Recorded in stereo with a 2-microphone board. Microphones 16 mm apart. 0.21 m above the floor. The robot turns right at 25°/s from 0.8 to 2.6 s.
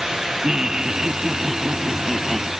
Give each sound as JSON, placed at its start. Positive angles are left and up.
{"t": 0.4, "sound": "laughter", "azimuth_deg": -45}